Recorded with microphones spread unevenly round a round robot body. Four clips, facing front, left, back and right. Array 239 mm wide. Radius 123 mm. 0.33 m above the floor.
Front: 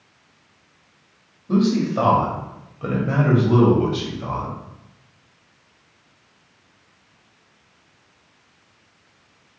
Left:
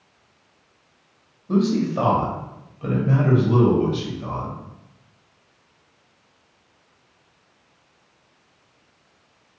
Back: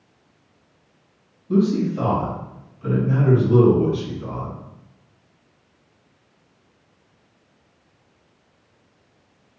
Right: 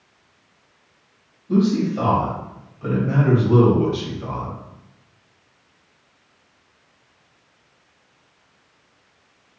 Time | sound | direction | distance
1.5 | a man speaking | 40° left | 1.4 m